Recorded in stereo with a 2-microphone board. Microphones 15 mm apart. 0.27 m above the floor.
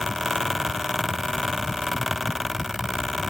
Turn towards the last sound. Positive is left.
No sound to turn to.